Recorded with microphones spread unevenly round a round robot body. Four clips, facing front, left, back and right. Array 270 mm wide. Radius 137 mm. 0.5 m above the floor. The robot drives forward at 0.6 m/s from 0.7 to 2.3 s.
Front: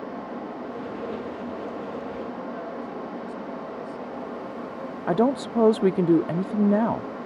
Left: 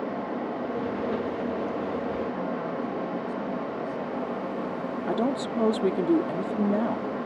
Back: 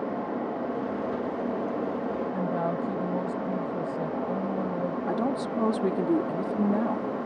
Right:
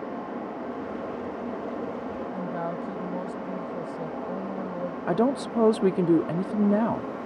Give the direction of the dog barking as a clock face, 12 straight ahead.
No dog barking in this recording.